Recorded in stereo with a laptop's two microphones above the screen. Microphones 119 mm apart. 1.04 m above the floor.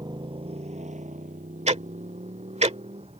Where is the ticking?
65° right (ahead or behind).